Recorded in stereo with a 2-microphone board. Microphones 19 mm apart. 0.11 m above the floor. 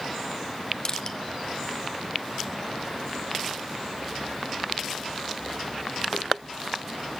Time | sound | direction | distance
0.8 | crushing | 40° left (ahead or behind) | 0.8 m